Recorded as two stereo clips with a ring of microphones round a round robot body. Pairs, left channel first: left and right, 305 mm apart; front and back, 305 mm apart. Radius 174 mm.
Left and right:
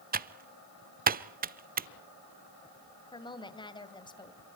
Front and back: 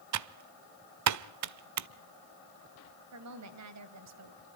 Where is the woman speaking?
165° left, 2.5 m.